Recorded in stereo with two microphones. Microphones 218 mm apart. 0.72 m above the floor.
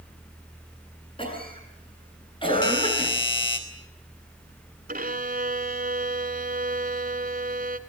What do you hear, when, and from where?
1.2 s a cough: 25° left (ahead or behind), 8 m
2.6 s a doorbell: 20° left (ahead or behind), 4.5 m
4.9 s a violin: 40° right (ahead or behind), 1.2 m